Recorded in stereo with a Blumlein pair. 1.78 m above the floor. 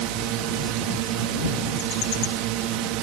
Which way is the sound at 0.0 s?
40° right.